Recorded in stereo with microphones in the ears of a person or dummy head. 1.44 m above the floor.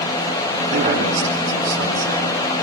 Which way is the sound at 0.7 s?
45° right (ahead or behind).